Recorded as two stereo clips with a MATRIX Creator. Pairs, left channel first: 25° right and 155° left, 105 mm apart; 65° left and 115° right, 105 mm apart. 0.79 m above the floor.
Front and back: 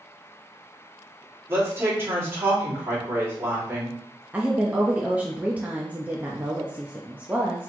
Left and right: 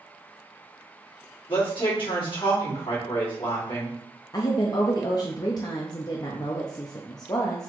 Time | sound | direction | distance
1.5 | a woman speaking | 95° left | 1.9 m
4.3 | a woman speaking | 90° left | 0.5 m